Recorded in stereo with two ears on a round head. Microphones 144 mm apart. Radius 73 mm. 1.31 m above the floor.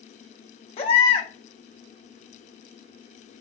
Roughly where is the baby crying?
Left.